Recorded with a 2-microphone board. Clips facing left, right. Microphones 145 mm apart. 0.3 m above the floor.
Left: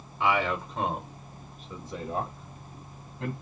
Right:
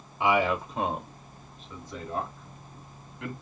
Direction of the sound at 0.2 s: 15° right (ahead or behind).